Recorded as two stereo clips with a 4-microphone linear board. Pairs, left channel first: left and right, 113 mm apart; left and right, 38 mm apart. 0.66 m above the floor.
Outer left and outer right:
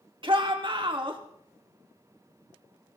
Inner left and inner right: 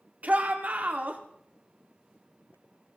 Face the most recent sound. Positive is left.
turn(degrees=-45)  # may be behind; listen again after turning